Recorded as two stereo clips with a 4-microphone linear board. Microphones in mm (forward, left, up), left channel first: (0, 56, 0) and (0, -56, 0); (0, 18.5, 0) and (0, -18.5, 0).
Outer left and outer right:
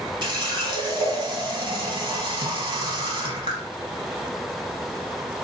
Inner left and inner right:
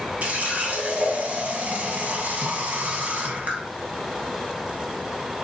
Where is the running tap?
45° right (ahead or behind), 1.0 m.